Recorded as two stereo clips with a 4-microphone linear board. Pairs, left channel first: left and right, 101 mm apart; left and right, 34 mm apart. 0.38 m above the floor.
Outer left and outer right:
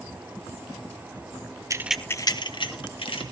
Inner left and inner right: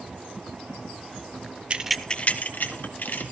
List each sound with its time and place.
1.7 s keys jangling: 35° right (ahead or behind), 0.5 m; by 3.2 s 65° left (ahead or behind), 1.8 m